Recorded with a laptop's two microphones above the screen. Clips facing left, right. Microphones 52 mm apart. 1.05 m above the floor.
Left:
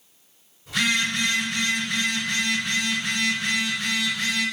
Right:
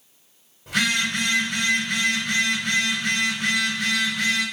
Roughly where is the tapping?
No tapping in this recording.